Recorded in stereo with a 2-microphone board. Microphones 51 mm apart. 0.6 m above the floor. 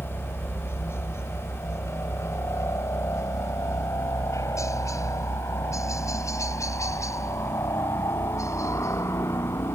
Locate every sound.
0.0 s a helicopter: 45° left (ahead or behind); by 9.8 s 65° left (ahead or behind)